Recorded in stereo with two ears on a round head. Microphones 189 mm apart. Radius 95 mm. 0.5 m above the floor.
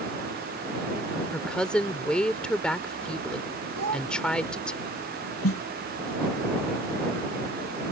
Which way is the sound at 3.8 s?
85° right.